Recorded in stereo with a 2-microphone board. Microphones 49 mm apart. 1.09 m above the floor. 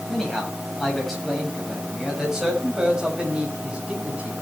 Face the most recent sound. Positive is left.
turn(degrees=-25)  # may be behind; listen again after turning